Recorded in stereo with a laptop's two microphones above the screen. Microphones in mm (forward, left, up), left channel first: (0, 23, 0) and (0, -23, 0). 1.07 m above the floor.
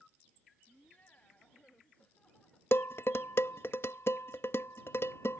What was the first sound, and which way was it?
Laughter, 35° left (ahead or behind).